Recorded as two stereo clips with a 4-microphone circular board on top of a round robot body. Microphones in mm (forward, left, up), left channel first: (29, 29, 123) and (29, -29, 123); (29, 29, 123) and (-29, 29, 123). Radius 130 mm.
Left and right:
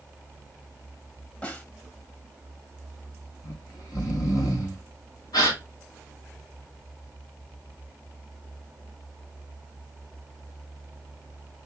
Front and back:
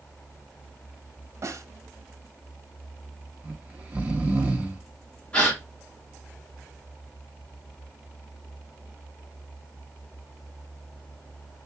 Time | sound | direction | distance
1.4 | a snare drum | 150° left | 1.0 m
3.4 | snoring | 115° left | 0.7 m
5.3 | a gasp | 70° left | 1.2 m